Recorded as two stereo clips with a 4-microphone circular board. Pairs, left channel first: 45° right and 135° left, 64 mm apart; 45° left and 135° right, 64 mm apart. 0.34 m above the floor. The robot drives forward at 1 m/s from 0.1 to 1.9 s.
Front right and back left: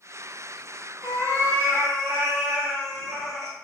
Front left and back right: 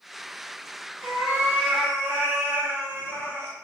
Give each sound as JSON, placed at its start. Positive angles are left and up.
{"t": 1.0, "sound": "a cat meowing", "azimuth_deg": 175, "distance_m": 1.5}